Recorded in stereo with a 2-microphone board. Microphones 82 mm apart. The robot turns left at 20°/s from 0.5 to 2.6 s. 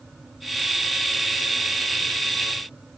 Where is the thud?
No thud in this recording.